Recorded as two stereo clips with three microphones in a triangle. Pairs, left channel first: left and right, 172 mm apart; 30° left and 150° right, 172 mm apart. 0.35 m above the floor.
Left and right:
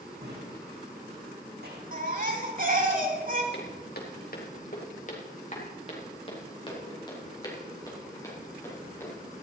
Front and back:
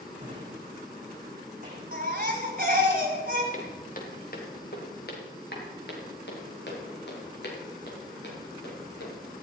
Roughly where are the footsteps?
Left.